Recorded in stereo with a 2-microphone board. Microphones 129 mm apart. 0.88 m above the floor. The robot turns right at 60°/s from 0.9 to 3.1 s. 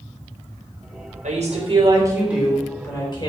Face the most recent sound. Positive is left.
turn(degrees=35)